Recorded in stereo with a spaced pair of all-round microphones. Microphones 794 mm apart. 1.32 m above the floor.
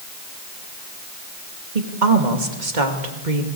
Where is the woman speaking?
70° right (ahead or behind), 2.5 m.